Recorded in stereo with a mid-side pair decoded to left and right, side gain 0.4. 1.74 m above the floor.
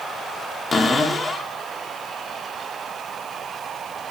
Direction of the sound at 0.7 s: 45° left.